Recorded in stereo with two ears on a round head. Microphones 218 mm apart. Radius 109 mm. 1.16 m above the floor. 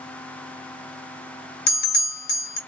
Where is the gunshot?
No gunshot in this recording.